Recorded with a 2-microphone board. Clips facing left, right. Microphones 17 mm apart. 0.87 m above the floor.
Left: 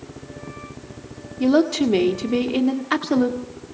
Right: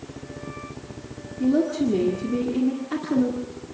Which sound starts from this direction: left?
A woman speaking, at 1.4 s.